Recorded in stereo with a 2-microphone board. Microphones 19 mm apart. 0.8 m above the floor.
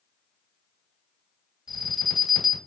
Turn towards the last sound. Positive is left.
turn(degrees=-25)  # may be behind; listen again after turning